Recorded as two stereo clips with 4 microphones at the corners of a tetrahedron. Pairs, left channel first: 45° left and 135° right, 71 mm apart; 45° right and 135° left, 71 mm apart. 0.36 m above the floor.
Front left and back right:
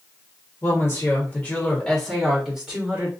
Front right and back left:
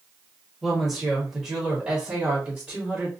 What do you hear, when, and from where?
0.6 s a woman speaking: 45° left, 1.5 m; by 3.1 s straight behind, 1.4 m